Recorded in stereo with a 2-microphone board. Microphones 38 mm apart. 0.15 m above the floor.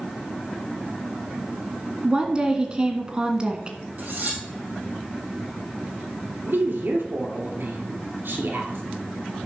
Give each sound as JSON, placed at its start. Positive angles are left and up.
{"t": 2.0, "sound": "a woman speaking", "side_deg": -25, "distance_m": 1.4}
{"t": 4.0, "sound": "cutlery clinking", "side_deg": -50, "distance_m": 3.0}
{"t": 6.4, "sound": "a woman speaking", "side_deg": -60, "distance_m": 2.5}